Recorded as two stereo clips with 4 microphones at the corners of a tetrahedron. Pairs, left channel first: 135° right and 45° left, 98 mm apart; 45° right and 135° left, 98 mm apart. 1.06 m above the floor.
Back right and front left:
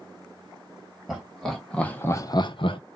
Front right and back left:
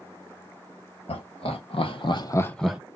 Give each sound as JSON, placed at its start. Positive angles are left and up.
{"t": 1.1, "sound": "laughter", "azimuth_deg": -45, "distance_m": 1.9}